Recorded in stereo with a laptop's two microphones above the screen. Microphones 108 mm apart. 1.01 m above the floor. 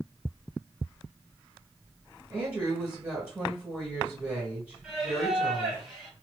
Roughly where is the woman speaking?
Centre.